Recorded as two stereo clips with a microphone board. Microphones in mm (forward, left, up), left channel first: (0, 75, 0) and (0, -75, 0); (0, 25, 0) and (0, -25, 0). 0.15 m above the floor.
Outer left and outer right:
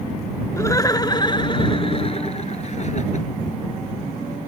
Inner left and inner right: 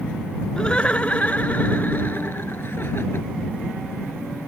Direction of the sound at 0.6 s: 20° left (ahead or behind).